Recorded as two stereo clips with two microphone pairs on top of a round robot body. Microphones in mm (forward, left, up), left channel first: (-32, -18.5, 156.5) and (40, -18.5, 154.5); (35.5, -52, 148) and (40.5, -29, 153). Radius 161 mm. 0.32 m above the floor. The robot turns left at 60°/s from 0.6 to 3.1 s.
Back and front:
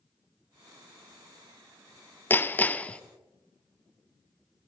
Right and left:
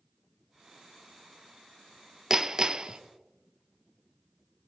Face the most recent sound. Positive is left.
turn(degrees=115)